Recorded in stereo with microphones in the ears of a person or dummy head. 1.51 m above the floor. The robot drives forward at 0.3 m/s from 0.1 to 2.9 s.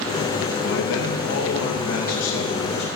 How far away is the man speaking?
About 2.5 m.